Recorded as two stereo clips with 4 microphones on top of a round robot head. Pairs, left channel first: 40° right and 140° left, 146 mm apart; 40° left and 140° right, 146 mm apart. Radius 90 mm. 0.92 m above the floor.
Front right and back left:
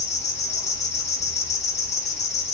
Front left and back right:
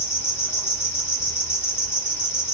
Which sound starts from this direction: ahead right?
An insect, at 0.0 s.